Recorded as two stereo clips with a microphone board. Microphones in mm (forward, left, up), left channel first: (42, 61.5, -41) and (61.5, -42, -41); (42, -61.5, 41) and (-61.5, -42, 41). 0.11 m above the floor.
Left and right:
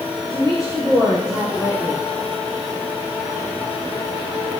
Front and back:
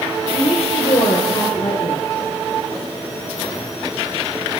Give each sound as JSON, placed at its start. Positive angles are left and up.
{"t": 0.3, "sound": "a woman speaking", "azimuth_deg": 5, "distance_m": 3.5}